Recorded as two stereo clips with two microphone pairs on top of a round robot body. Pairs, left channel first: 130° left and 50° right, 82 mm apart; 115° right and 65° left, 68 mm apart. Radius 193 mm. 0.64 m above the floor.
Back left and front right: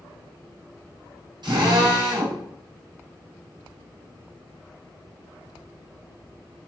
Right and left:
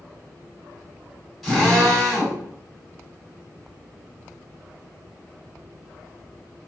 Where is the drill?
25° right, 7.5 m.